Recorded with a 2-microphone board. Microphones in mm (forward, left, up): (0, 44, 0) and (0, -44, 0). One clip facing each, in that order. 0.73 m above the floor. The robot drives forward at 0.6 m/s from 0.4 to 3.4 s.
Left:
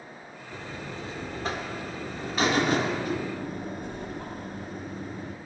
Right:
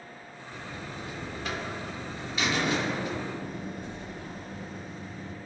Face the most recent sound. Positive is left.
turn(degrees=55)  # may be behind; listen again after turning